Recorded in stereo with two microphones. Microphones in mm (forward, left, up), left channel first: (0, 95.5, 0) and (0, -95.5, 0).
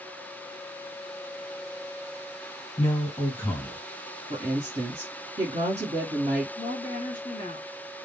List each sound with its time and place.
2.8 s a man speaking: 10° left (ahead or behind), 1.7 m
4.3 s a woman speaking: 35° right (ahead or behind), 1.2 m
6.6 s a woman speaking: 25° left (ahead or behind), 1.8 m